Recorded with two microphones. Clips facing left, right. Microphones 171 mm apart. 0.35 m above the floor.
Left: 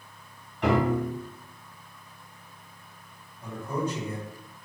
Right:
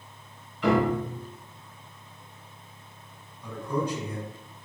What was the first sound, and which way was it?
A piano, 60° left (ahead or behind).